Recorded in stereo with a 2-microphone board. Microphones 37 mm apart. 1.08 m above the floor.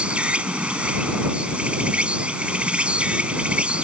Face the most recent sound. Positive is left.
turn(degrees=-30)  # may be behind; listen again after turning